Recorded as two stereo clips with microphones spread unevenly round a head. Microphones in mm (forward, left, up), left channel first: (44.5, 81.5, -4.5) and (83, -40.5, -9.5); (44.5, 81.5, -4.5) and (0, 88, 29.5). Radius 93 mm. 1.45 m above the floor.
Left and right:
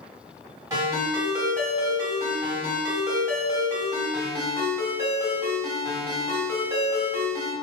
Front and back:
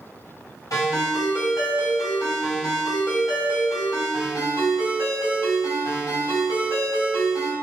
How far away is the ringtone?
About 1.6 m.